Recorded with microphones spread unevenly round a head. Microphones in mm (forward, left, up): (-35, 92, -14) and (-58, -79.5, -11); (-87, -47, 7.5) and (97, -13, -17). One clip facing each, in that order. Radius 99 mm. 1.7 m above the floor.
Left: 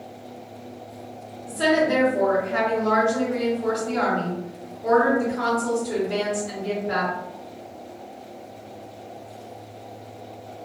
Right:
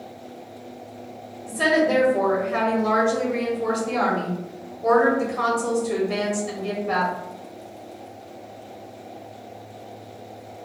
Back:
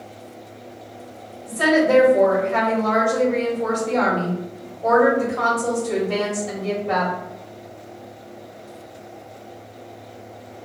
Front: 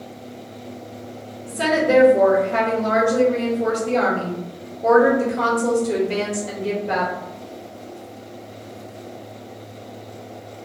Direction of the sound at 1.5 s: 55° right.